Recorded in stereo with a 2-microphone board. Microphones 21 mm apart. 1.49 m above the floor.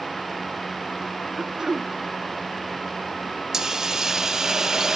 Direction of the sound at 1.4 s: 30° right (ahead or behind).